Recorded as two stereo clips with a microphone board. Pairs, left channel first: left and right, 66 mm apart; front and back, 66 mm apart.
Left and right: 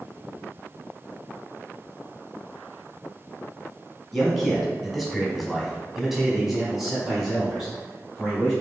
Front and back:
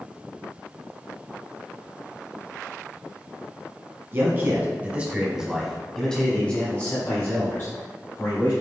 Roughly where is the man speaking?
Behind.